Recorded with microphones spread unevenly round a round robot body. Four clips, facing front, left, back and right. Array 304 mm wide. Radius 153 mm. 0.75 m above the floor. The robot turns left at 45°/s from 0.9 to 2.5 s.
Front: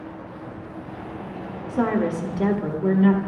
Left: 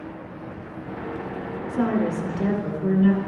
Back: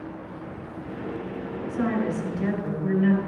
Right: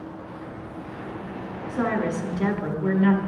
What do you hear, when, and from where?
1.7 s a woman speaking: 30° left, 1.5 m; by 3.2 s 5° right, 1.5 m